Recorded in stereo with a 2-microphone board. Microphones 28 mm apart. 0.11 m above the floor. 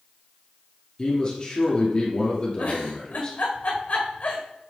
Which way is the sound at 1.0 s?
35° left (ahead or behind).